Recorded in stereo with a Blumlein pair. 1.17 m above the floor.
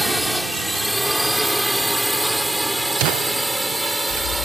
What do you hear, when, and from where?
0.0 s a drone: straight ahead; by 4.5 s 5° right